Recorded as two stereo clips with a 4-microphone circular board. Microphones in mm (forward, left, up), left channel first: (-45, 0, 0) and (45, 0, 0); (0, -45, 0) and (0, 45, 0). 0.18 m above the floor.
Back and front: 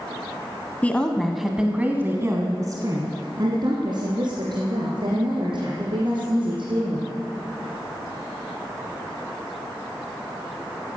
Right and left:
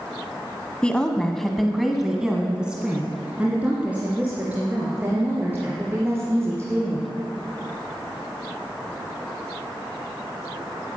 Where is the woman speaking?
145° right, 1.3 m; by 7.1 s 20° left, 5 m.